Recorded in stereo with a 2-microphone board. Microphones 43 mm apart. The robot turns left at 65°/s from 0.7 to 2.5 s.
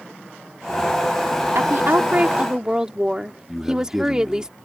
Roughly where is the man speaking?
Centre.